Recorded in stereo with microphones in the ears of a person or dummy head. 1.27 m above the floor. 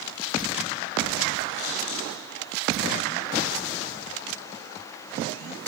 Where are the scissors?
70° left (ahead or behind), 8 m.